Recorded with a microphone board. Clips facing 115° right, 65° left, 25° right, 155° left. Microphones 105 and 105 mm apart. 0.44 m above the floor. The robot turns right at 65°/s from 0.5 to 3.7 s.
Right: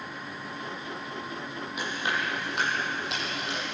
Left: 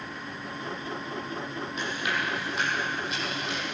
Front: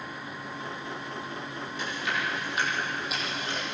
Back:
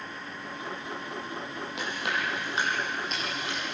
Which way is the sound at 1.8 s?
165° left.